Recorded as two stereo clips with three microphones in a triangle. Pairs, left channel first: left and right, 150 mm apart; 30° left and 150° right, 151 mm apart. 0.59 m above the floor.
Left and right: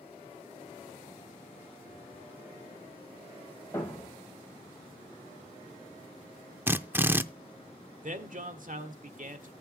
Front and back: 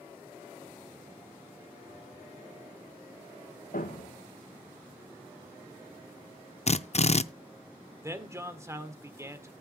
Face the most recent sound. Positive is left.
turn(degrees=-80)